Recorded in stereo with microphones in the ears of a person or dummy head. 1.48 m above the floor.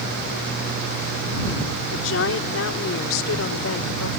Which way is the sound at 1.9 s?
70° left (ahead or behind).